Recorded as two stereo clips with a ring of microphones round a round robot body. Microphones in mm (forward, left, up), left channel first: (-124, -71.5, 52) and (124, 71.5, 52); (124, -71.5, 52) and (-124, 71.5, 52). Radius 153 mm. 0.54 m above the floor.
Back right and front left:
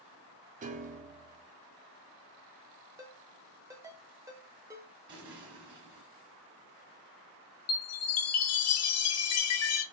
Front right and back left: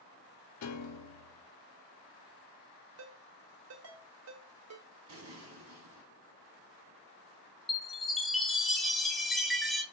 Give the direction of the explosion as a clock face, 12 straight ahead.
8 o'clock.